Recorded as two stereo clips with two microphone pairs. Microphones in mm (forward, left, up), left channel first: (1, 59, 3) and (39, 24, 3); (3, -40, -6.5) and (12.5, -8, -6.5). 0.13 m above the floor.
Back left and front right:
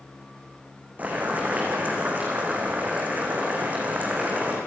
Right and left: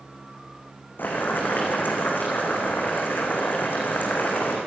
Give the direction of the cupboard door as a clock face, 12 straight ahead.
No cupboard door in this recording.